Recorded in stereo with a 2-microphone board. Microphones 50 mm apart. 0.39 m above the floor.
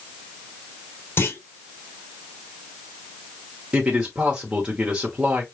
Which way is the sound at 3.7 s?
20° right (ahead or behind).